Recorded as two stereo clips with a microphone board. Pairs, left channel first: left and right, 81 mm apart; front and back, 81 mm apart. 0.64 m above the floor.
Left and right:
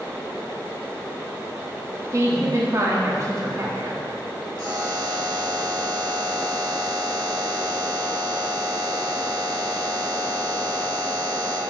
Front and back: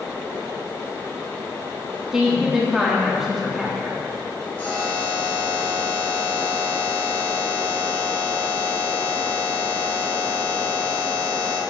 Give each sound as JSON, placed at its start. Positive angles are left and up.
{"t": 2.1, "sound": "a woman speaking", "azimuth_deg": -100, "distance_m": 1.1}
{"t": 4.6, "sound": "a buzzer", "azimuth_deg": -70, "distance_m": 2.0}